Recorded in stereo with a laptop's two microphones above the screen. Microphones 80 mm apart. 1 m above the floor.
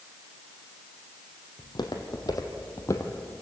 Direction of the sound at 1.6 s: 60° left (ahead or behind).